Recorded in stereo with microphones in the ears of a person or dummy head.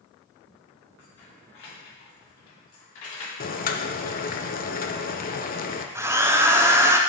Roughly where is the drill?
Centre.